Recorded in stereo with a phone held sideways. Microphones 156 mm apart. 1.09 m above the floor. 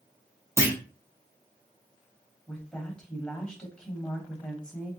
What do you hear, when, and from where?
0.6 s a clunk: 20° right (ahead or behind), 0.7 m
2.5 s a woman speaking: 5° left (ahead or behind), 0.9 m